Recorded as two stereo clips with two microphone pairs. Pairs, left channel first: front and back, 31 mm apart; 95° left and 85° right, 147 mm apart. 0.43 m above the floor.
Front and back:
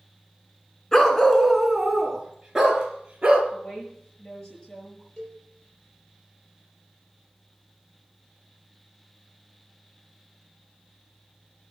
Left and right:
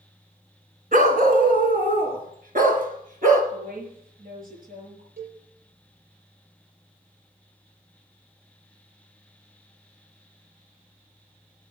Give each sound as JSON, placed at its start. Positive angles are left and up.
{"t": 0.9, "sound": "a dog barking", "azimuth_deg": -70, "distance_m": 1.7}
{"t": 3.5, "sound": "a woman speaking", "azimuth_deg": -65, "distance_m": 6.5}
{"t": 5.2, "sound": "a cowbell", "azimuth_deg": -75, "distance_m": 6.0}